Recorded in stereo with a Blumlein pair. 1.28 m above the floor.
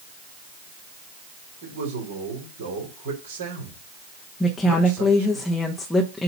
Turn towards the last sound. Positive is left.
turn(degrees=5)